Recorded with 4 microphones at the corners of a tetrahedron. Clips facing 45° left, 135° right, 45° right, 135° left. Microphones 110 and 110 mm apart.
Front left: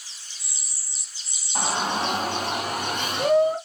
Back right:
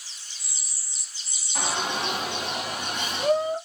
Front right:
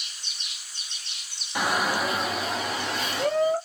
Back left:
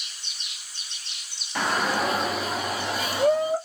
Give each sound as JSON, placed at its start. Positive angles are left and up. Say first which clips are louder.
{"t": 1.6, "sound": "a shout", "louder": "front left 3 dB, back left 1 dB", "azimuth_deg": 30, "distance_m": 1.5}